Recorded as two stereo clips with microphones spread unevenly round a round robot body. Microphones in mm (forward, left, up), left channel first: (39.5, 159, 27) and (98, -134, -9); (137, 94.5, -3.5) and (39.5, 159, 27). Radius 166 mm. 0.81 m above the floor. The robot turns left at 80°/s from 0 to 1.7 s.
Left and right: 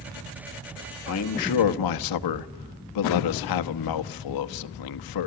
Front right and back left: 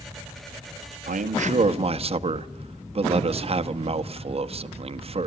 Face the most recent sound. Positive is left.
turn(degrees=105)